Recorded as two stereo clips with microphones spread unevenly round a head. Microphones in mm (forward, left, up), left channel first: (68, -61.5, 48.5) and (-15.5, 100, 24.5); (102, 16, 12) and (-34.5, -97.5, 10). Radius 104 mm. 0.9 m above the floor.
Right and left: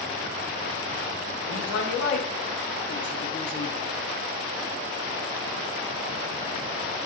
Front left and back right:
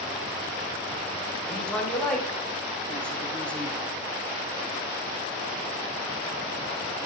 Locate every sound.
1.4 s a woman speaking: 45° right, 3.5 m